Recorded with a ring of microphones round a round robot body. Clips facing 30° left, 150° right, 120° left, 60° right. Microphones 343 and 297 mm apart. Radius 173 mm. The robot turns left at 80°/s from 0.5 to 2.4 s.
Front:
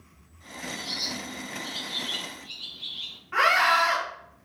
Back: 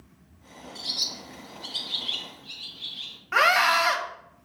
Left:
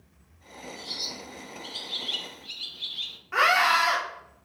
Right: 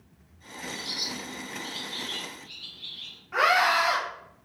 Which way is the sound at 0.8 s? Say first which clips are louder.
Front 7 dB, right 3 dB; 100° right.